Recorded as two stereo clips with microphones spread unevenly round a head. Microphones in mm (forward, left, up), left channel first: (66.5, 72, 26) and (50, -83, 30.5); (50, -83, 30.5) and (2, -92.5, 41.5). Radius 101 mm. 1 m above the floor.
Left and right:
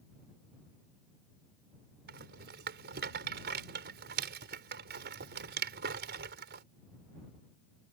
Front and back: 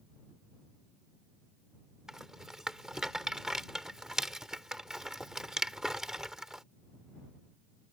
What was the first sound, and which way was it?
A rattle, 90° right.